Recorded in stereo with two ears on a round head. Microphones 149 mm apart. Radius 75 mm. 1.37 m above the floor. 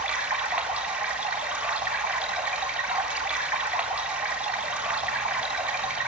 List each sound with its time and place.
0.0 s running water: 5° right (ahead or behind), 3.5 m